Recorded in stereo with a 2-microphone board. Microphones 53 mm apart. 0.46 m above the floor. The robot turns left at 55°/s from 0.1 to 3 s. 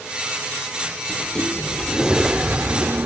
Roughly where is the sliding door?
Ahead left.